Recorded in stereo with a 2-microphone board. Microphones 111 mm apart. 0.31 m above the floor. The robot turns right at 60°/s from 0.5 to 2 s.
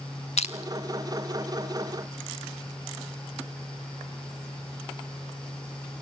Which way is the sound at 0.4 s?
75° left (ahead or behind).